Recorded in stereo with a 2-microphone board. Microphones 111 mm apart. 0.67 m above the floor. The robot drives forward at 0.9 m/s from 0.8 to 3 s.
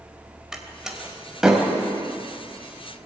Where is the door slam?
5° right (ahead or behind), 2.5 m.